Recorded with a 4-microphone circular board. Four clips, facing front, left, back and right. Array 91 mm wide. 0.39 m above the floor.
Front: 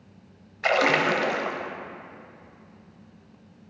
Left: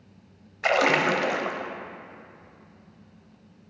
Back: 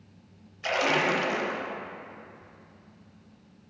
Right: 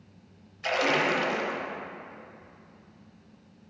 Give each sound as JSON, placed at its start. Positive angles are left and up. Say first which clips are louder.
{"t": 0.6, "sound": "a splash", "louder": "left 4 dB, front 4 dB", "azimuth_deg": 55, "distance_m": 0.6}